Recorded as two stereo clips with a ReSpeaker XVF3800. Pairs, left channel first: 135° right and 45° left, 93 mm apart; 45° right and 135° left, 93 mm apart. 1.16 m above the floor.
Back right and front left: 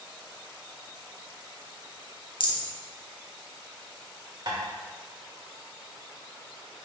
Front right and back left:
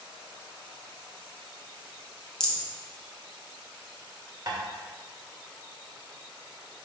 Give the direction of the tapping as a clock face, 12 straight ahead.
9 o'clock.